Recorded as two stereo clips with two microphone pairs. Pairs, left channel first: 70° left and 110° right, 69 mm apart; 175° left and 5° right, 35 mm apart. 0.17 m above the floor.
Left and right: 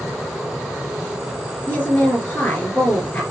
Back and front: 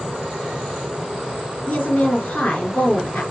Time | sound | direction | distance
1.7 | a woman speaking | 130° left | 3 m